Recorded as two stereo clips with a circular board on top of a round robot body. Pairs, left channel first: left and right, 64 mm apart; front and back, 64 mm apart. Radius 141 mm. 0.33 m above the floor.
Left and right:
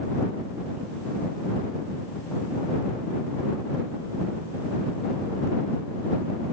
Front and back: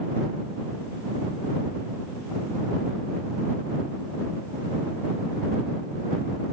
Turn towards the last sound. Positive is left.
No sound to turn to.